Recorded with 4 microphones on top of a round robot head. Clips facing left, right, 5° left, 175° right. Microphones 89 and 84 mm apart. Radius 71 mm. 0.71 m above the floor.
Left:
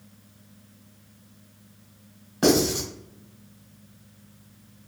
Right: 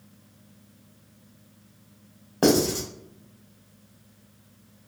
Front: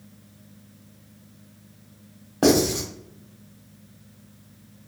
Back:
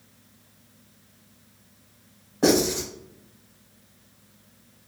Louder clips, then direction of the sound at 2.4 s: Even, front 2 dB; 45° right.